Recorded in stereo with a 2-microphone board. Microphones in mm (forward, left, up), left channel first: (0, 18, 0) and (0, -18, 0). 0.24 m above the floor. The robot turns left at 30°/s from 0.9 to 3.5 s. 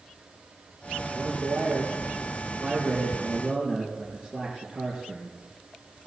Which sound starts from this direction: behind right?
A man speaking, at 1.1 s.